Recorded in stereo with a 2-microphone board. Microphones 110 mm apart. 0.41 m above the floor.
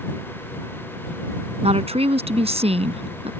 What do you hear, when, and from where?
1.6 s a woman speaking: 60° right (ahead or behind)